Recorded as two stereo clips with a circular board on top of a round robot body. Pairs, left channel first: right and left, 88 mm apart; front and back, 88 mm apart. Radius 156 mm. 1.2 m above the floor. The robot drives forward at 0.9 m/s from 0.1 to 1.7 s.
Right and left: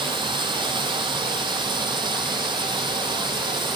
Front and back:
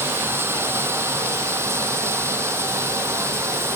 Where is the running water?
115° left; by 3.8 s 120° left.